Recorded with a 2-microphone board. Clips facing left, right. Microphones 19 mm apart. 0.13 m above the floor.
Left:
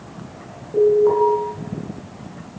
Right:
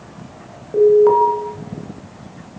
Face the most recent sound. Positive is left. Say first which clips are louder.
# right 4 dB
turn(degrees=-35)  # may be behind; listen again after turning